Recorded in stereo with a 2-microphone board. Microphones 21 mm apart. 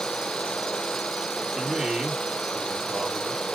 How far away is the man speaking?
About 2 m.